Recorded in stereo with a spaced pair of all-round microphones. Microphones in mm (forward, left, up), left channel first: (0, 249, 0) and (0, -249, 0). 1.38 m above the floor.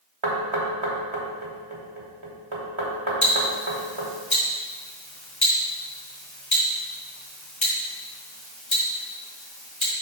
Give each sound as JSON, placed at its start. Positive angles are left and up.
{"t": 0.2, "sound": "knocking", "side_deg": -70, "distance_m": 1.6}
{"t": 3.2, "sound": "ticking", "side_deg": 65, "distance_m": 1.9}